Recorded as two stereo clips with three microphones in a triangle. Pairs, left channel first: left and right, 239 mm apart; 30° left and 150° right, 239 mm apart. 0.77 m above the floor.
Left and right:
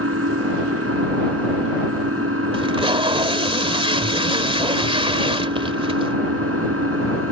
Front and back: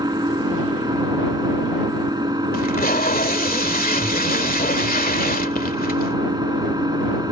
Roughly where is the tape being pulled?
Ahead right.